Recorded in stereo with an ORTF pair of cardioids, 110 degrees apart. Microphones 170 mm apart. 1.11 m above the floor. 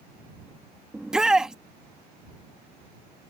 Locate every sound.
0.9 s a shout: 5° right